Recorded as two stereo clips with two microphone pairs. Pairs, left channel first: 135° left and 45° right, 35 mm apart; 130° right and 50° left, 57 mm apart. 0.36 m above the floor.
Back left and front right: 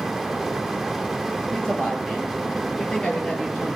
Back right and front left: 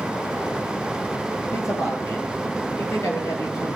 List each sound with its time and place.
1.5 s a man speaking: 155° right, 7.5 m; by 3.8 s 160° right, 9 m